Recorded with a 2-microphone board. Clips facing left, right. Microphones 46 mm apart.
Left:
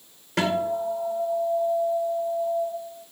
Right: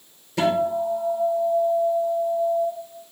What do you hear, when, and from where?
0.4 s a guitar: 65° left (ahead or behind), 2.5 m